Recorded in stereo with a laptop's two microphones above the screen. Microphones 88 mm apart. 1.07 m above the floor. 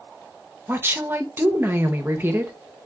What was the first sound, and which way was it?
A woman speaking, 25° right (ahead or behind).